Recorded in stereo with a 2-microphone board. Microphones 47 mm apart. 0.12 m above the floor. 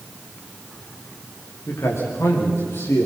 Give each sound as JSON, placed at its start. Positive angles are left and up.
{"t": 1.7, "sound": "a man speaking", "side_deg": 70, "distance_m": 8.5}